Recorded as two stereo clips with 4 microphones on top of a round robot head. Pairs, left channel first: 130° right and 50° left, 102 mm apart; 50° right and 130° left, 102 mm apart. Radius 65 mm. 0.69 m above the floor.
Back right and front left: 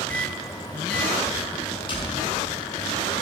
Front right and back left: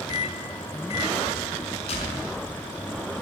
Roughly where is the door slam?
Right.